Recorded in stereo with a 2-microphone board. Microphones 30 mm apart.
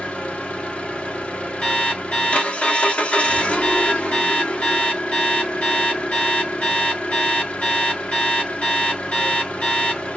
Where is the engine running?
45° left (ahead or behind), 1.0 m.